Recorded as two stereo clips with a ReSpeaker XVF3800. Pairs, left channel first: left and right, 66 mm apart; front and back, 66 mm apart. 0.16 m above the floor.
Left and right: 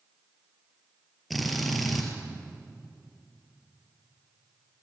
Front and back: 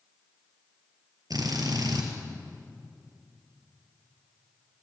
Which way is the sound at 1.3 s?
Straight behind.